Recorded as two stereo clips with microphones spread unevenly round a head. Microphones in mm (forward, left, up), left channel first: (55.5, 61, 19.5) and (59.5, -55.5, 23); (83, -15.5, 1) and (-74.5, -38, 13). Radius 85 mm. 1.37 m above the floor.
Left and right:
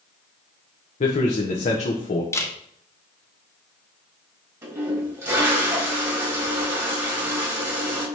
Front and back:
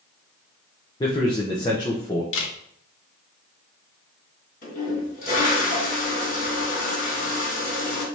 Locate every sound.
1.0 s a man speaking: 75° left, 1.0 m
2.3 s a camera shutter: 25° left, 1.4 m
4.6 s a toilet flushing: 25° right, 3 m